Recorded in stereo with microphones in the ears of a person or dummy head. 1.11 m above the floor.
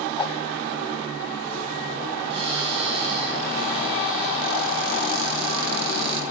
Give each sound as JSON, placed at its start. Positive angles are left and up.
{"t": 0.2, "sound": "a whoosh", "side_deg": 25, "distance_m": 0.8}
{"t": 2.3, "sound": "a cupboard door", "side_deg": -35, "distance_m": 7.0}